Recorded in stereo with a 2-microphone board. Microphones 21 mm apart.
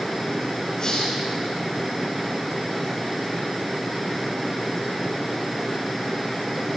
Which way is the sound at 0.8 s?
30° left (ahead or behind).